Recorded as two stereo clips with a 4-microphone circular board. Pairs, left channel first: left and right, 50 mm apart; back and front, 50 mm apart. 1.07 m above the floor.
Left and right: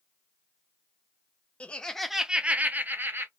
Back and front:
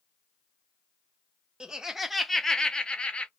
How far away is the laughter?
About 0.5 m.